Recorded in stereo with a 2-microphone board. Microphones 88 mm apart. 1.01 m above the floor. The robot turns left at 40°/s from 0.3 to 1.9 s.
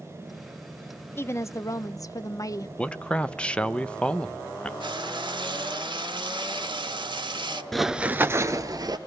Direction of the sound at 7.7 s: Centre (ahead or behind).